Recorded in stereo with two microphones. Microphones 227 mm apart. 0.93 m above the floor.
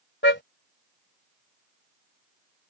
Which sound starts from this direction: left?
A car horn, at 0.2 s.